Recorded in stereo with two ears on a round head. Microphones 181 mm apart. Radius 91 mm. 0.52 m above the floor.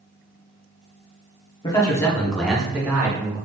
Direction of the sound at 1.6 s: 20° left (ahead or behind).